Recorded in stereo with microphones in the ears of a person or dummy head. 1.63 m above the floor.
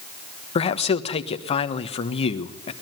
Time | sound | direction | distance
0.6 | a man speaking | 35° left (ahead or behind) | 1.4 m